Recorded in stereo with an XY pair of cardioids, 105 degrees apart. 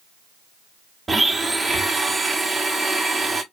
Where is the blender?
20° right, 0.7 m.